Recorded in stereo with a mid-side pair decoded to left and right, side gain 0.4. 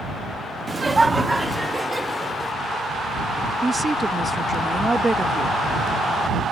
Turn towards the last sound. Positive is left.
turn(degrees=-20)